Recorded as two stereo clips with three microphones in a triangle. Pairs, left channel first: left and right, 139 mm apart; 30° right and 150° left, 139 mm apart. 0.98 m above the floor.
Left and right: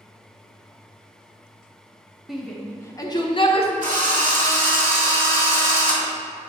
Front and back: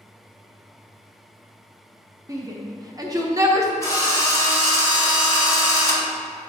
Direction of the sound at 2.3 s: 175° right.